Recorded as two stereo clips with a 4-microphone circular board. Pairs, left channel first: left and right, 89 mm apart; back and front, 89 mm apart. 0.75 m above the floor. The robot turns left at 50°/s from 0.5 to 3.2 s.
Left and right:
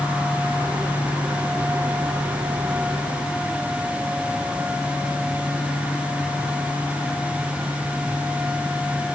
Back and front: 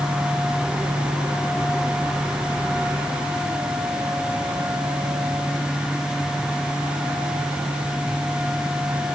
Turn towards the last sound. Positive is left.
No sound to turn to.